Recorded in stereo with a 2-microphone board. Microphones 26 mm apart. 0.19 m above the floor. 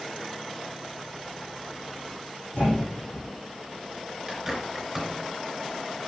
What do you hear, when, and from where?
2.5 s a thud: 65° left (ahead or behind), 4.5 m
4.3 s a bird: 5° right (ahead or behind), 3 m